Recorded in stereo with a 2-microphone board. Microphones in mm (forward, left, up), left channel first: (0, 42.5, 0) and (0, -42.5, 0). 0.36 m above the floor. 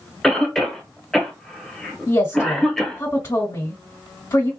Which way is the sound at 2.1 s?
40° left (ahead or behind).